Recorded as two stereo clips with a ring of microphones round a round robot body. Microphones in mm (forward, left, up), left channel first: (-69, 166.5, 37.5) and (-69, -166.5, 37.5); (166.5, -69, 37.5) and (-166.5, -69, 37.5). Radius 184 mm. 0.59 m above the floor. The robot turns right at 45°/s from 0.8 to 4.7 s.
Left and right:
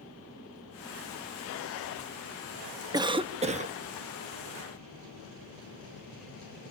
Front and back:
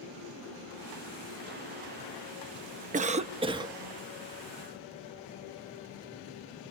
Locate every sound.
2.9 s a cough: 150° right, 0.7 m; by 3.8 s 115° right, 0.7 m